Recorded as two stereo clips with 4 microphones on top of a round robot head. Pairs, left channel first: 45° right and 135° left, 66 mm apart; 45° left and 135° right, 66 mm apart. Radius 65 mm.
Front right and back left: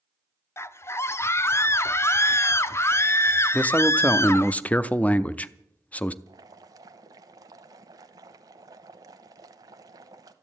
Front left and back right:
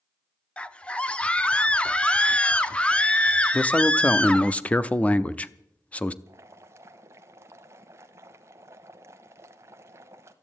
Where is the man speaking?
Straight ahead, 0.7 m.